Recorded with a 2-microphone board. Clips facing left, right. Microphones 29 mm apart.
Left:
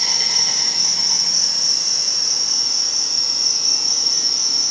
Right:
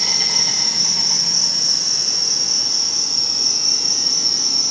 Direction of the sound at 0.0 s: 5° left (ahead or behind).